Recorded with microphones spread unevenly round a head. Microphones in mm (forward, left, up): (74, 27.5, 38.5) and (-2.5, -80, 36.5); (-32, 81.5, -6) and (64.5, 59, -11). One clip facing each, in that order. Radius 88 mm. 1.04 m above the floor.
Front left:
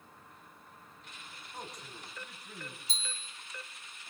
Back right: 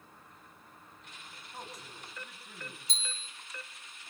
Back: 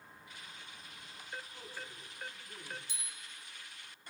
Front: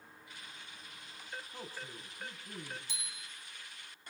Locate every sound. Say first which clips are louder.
1.5 s a man speaking: front left 1 dB, front 2 dB; 40° right, 6.5 m
2.9 s a bicycle bell: even, front 2 dB; 35° right, 4.5 m